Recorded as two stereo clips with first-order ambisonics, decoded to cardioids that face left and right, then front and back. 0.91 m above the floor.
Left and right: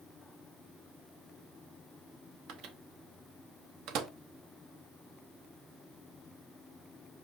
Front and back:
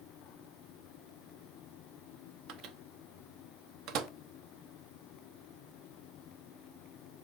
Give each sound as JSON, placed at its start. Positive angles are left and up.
{"t": 2.5, "sound": "a microwave", "azimuth_deg": -135, "distance_m": 0.7}